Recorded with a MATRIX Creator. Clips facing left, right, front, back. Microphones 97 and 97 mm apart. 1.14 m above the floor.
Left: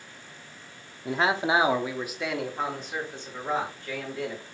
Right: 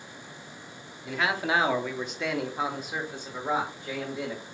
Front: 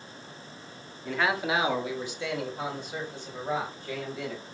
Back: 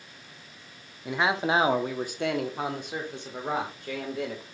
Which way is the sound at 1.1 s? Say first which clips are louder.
Left 3 dB, back 2 dB; 110° left.